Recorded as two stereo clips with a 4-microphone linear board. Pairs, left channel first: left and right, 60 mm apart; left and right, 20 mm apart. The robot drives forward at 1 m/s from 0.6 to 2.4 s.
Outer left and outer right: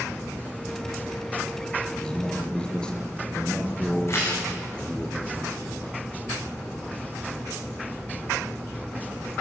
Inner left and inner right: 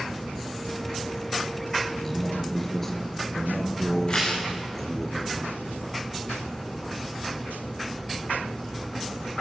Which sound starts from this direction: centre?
A man speaking, at 1.9 s.